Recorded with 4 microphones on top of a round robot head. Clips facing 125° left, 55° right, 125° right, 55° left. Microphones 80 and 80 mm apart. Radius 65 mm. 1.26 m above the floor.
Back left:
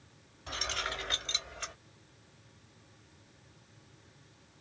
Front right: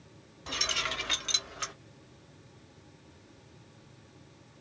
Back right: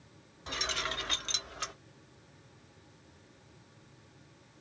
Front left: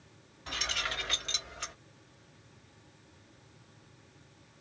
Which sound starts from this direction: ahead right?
Keys jangling, at 0.5 s.